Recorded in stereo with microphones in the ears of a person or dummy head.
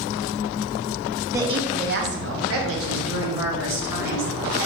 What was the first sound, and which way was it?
A woman speaking, 15° right (ahead or behind).